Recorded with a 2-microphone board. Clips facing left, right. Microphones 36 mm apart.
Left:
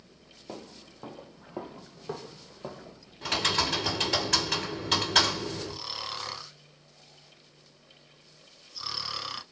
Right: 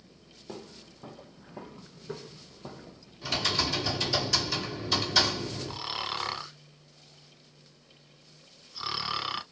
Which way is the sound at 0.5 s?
15° left (ahead or behind).